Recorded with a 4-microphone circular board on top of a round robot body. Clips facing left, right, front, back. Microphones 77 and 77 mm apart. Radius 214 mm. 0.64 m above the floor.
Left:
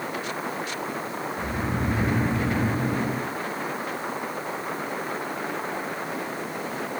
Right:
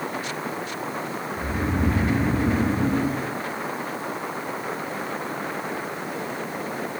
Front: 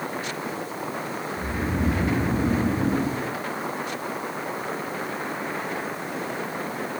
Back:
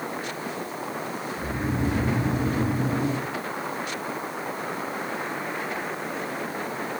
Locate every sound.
1.4 s snoring: 65° right, 5.5 m